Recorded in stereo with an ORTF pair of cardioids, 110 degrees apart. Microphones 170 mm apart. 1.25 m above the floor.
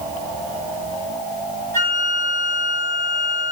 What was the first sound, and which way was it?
A flute, 15° left.